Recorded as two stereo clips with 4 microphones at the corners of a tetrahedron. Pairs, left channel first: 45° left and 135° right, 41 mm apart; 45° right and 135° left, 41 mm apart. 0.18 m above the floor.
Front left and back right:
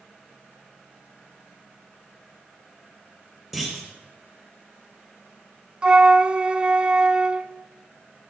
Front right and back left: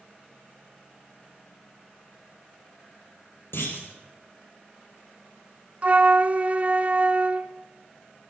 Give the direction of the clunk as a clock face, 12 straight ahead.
2 o'clock.